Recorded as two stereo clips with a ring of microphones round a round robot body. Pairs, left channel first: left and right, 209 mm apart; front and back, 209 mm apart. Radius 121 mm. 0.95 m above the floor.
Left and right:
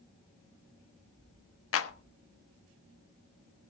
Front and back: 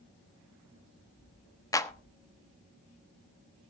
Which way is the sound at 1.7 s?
75° left.